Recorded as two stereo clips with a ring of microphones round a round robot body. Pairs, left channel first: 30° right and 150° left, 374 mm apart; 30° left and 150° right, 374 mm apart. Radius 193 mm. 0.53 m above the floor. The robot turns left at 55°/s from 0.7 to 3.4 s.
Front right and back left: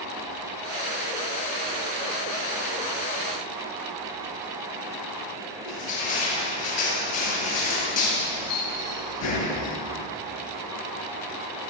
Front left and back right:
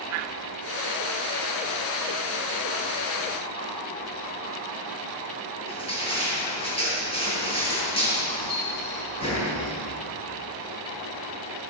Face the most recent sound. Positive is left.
turn(degrees=-45)